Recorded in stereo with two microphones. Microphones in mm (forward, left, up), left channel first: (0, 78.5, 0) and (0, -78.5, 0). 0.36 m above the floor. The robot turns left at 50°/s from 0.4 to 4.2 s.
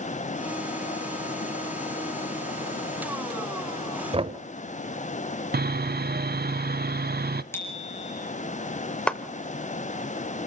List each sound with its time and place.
4.1 s knocking: 40° right (ahead or behind), 1.1 m
5.5 s sawing: 85° right, 0.6 m
7.5 s a bicycle bell: 15° left (ahead or behind), 4.5 m
9.1 s a clap: 5° left (ahead or behind), 1.0 m